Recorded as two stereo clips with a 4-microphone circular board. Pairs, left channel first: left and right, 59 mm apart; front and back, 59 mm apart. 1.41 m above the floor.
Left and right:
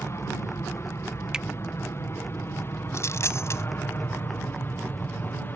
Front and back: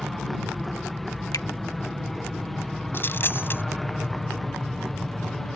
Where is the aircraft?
85° left; by 5.6 s 80° left.